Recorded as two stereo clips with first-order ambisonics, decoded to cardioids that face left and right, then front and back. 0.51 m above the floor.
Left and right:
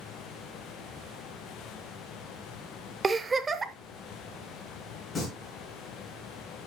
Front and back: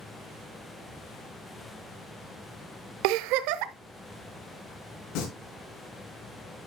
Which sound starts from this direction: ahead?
Singing, at 5.2 s.